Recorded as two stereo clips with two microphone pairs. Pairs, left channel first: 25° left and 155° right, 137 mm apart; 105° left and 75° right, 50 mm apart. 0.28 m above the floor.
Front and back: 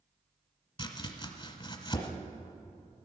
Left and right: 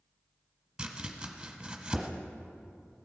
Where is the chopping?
10° right, 1.2 m.